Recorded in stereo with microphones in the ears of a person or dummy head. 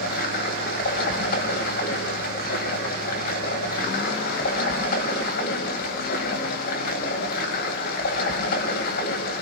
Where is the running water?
50° left (ahead or behind), 2.5 m.